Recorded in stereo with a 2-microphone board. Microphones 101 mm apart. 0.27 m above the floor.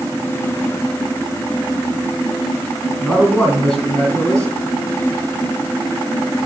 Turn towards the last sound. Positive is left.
turn(degrees=10)  # may be behind; listen again after turning